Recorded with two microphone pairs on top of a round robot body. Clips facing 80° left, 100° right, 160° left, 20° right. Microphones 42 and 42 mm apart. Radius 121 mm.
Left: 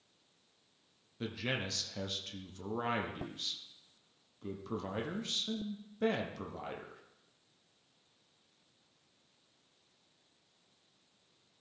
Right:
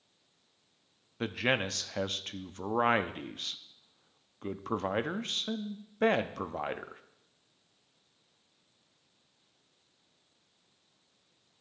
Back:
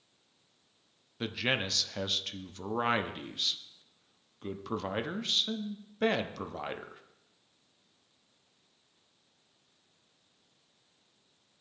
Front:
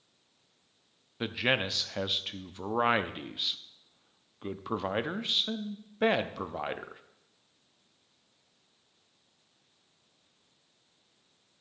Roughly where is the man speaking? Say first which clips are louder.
Right 7 dB, front 3 dB; right.